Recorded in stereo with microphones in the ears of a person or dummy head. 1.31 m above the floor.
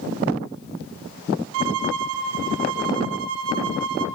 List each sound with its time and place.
1.5 s a violin: 75° right (ahead or behind), 0.8 m